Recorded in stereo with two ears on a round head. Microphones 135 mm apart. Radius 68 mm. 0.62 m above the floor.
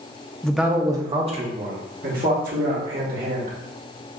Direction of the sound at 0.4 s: 5° left (ahead or behind).